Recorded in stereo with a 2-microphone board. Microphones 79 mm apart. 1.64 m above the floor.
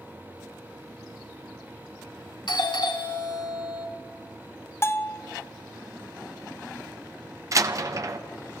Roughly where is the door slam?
Right.